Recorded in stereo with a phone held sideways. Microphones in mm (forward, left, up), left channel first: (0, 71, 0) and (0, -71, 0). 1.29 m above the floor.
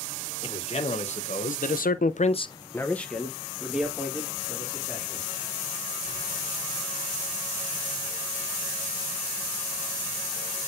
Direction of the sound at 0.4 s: 45° left (ahead or behind).